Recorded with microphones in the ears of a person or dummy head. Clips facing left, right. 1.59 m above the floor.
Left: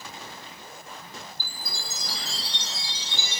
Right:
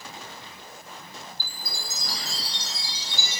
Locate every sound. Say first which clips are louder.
1.4 s a chime: even; 45° right (ahead or behind), 2 m